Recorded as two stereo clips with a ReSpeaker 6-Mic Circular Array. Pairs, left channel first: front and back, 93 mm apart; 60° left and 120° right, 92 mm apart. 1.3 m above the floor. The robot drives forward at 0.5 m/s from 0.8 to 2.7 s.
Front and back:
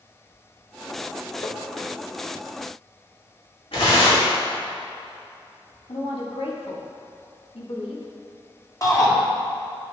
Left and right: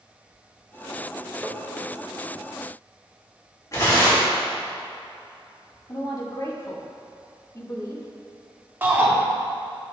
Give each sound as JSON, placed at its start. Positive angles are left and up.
{"t": 1.4, "sound": "tapping", "azimuth_deg": -35, "distance_m": 0.9}
{"t": 3.7, "sound": "tearing paper", "azimuth_deg": 5, "distance_m": 3.0}
{"t": 5.9, "sound": "a woman speaking", "azimuth_deg": 5, "distance_m": 1.7}
{"t": 8.8, "sound": "a shout", "azimuth_deg": -55, "distance_m": 1.7}